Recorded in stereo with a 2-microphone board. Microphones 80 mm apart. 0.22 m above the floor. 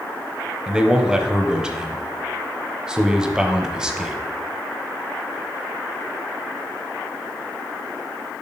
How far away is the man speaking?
About 0.9 m.